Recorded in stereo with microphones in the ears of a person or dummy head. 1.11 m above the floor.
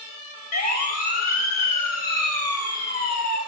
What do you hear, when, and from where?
0.5 s a siren: 45° left (ahead or behind), 4 m; by 3.4 s 55° left (ahead or behind), 6 m